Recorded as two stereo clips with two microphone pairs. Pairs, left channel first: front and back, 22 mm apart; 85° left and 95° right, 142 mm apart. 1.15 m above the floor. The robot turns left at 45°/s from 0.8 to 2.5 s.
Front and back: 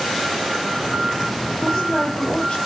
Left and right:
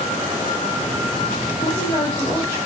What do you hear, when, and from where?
1.6 s a woman speaking: 50° left, 8 m; by 2.6 s 10° left, 8 m